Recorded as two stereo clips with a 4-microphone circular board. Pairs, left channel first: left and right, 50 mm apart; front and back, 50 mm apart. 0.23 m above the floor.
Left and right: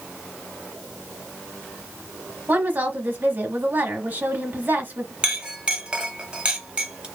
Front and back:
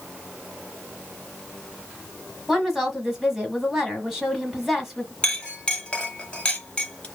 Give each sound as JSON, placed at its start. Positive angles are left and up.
{"t": 2.5, "sound": "a woman speaking", "azimuth_deg": -100, "distance_m": 1.2}
{"t": 5.2, "sound": "a clink", "azimuth_deg": -40, "distance_m": 0.8}